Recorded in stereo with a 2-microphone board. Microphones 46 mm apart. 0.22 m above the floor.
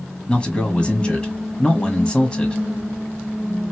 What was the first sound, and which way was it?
A man speaking, 20° left (ahead or behind).